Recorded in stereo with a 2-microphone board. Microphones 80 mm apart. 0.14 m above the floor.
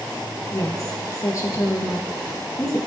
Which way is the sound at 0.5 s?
40° left (ahead or behind).